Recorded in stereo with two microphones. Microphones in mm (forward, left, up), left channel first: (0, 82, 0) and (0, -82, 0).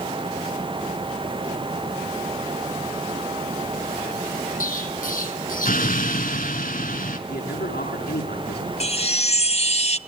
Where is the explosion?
55° left (ahead or behind), 2 m.